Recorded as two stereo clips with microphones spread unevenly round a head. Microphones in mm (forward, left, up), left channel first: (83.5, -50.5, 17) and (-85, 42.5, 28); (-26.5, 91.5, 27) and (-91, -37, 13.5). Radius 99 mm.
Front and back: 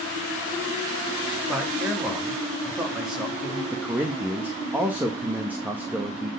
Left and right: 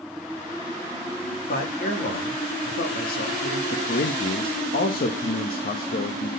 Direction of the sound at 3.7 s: 70° left.